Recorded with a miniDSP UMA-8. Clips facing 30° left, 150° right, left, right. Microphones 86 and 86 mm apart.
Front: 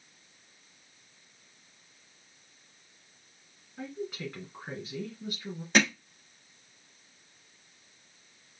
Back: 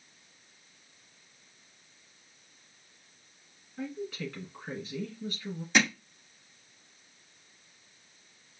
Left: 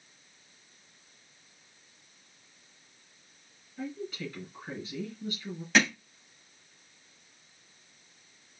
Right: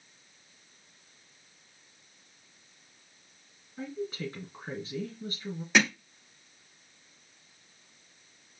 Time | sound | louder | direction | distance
3.8 | a woman speaking | back 1 dB, right 2 dB | 35° right | 3 m
5.7 | hammering | front 1 dB, even | 10° right | 4 m